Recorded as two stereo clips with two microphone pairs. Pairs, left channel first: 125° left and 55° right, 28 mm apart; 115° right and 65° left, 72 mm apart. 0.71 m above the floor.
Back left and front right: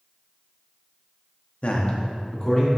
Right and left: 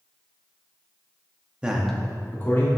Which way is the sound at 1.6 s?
140° left.